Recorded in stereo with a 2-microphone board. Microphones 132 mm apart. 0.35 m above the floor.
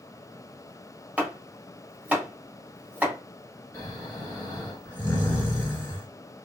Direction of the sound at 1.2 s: 10° right (ahead or behind).